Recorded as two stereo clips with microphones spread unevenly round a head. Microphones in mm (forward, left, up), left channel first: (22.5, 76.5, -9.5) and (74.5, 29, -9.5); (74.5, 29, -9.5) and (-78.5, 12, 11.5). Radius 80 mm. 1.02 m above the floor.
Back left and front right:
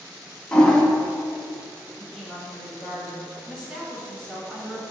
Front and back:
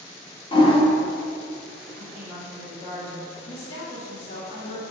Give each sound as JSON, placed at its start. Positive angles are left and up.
{"t": 0.5, "sound": "a toilet flushing", "azimuth_deg": 60, "distance_m": 1.8}
{"t": 2.0, "sound": "a woman speaking", "azimuth_deg": 35, "distance_m": 2.5}